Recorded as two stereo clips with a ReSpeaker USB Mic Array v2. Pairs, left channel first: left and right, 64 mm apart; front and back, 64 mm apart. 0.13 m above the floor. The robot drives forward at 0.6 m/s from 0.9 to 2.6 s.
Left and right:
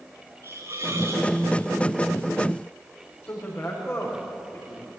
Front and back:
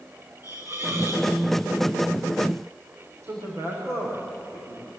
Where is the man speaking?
140° left, 8.5 m.